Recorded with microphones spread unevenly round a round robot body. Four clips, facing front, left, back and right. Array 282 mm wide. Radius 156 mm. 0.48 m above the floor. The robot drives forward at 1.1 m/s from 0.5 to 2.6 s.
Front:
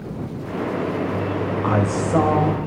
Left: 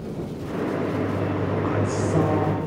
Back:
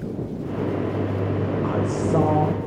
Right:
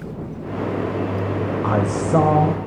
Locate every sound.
1.6 s a man speaking: 45° right, 2.5 m; by 2.7 s 70° right, 2 m